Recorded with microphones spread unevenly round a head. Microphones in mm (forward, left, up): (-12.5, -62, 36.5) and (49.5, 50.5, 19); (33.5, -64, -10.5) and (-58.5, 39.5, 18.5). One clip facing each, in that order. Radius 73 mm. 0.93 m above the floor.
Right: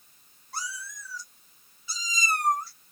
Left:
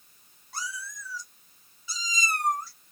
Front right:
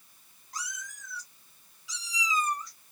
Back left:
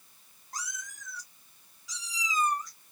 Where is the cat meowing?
80° left, 1.1 m.